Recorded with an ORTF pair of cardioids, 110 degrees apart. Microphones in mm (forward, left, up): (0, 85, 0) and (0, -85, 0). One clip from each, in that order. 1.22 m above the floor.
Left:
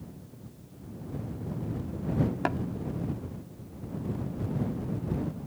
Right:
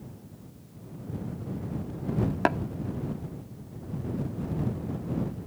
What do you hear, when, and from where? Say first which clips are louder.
2.5 s tapping: right 7 dB; 30° right